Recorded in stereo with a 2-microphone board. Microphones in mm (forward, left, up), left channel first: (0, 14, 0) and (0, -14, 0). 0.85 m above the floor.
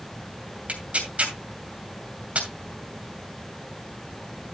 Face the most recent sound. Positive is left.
turn(degrees=-50)  # may be behind; listen again after turning